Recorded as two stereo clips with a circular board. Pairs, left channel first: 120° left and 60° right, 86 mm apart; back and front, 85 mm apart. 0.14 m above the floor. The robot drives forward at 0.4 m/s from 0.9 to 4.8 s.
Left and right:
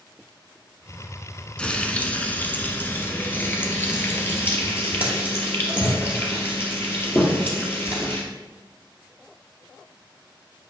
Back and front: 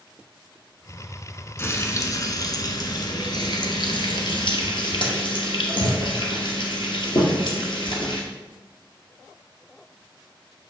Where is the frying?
Straight behind, 0.8 m.